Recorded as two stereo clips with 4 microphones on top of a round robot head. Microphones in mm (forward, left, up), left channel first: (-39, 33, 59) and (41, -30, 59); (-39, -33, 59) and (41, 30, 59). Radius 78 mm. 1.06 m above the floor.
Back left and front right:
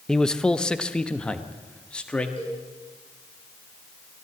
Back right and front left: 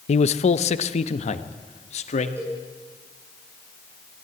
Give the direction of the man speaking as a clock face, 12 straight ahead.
4 o'clock.